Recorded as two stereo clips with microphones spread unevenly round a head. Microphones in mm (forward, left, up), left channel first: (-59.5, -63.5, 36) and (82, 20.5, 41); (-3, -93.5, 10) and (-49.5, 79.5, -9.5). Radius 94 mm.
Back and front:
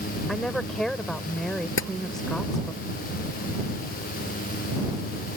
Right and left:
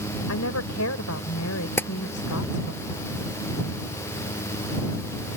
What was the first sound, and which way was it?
A woman speaking, 60° right.